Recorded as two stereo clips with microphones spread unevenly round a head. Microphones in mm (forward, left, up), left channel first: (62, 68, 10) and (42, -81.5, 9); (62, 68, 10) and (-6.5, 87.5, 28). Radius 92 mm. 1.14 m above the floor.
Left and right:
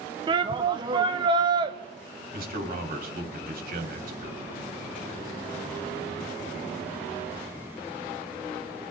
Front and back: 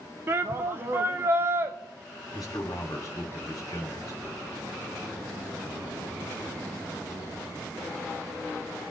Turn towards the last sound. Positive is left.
turn(degrees=-80)